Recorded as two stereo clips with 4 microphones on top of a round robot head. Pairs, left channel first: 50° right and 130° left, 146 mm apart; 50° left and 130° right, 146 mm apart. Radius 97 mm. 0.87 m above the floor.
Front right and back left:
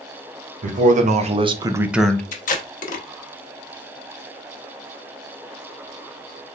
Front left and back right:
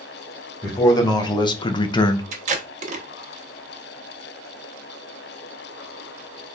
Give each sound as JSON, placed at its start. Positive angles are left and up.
{"t": 0.6, "sound": "a man speaking", "azimuth_deg": 115, "distance_m": 1.1}
{"t": 2.3, "sound": "tape being pulled", "azimuth_deg": -85, "distance_m": 0.7}